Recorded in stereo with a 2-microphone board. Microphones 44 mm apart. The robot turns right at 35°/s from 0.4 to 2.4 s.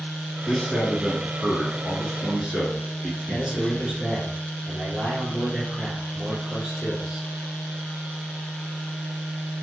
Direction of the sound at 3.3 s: 20° right (ahead or behind).